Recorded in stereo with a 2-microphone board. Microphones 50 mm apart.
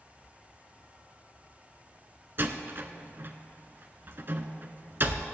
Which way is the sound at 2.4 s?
45° right (ahead or behind).